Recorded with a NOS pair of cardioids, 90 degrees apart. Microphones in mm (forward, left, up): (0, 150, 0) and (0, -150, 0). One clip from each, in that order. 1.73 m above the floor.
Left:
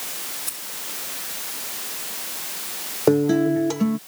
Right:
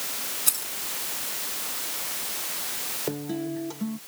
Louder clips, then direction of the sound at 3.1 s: Left 16 dB; 65° left.